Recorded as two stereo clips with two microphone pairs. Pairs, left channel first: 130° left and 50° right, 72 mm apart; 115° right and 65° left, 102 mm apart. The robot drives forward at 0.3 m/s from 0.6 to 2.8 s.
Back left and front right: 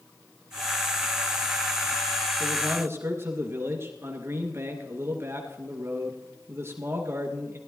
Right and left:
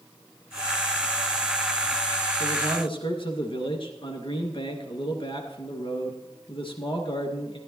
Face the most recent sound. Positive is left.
turn(degrees=-95)